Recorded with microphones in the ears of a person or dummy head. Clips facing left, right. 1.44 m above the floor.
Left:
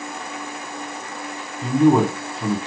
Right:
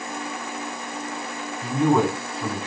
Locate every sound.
1.6 s a man speaking: 25° left (ahead or behind), 0.9 m